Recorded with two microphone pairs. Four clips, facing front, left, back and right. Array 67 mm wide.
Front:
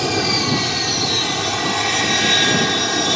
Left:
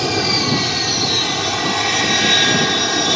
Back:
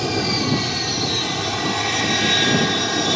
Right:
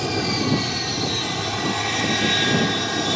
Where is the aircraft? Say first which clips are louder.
Left 4 dB, front 2 dB; 55° left; by 3.2 s 70° left.